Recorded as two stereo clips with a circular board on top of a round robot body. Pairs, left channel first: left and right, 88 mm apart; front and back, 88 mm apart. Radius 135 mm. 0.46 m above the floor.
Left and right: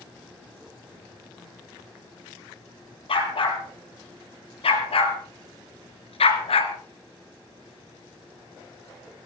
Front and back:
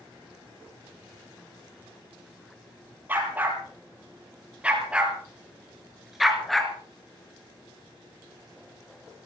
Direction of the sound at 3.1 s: 110° left.